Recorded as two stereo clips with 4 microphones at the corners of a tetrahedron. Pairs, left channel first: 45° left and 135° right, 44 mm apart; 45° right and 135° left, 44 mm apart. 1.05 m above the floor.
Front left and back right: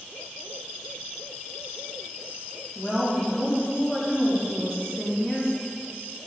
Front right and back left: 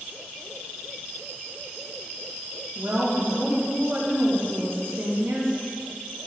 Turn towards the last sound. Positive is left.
turn(degrees=115)